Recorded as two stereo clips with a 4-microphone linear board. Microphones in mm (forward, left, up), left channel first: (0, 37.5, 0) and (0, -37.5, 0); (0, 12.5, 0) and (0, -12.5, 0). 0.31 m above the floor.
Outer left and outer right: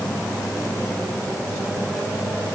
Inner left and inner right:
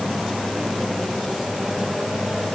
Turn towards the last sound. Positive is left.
No sound to turn to.